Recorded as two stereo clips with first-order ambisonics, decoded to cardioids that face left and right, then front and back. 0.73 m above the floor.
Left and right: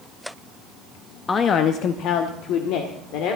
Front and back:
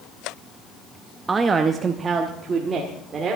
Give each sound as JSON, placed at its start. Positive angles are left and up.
{"t": 1.3, "sound": "a man speaking", "azimuth_deg": 130, "distance_m": 0.5}